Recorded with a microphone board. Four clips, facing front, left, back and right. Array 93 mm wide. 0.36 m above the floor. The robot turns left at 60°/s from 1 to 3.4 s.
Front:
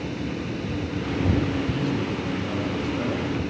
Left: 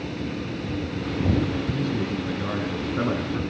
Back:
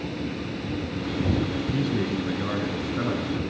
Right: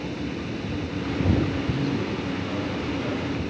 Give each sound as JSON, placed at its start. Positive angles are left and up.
{"t": 1.7, "sound": "a man speaking", "azimuth_deg": -170, "distance_m": 5.0}